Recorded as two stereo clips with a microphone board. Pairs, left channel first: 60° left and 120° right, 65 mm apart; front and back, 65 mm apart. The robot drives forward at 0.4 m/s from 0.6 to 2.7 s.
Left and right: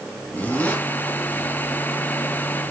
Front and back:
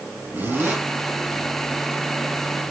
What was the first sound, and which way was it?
A zipper, 120° left.